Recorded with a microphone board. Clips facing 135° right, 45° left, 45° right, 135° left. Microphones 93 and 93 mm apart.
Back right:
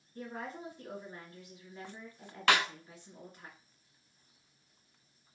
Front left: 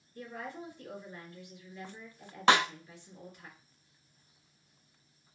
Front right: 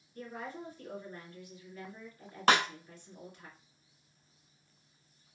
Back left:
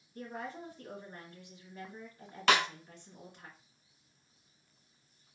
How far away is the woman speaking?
About 2 m.